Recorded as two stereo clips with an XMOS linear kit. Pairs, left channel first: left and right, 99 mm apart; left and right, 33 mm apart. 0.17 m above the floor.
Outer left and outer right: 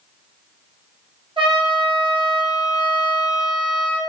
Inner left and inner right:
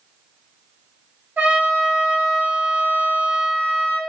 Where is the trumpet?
70° right (ahead or behind), 0.6 m.